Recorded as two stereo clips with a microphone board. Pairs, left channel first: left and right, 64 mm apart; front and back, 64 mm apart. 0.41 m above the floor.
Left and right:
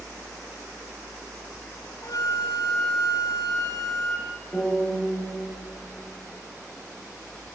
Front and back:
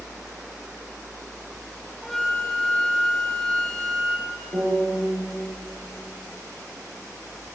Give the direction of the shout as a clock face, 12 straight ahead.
I don't hear a shout.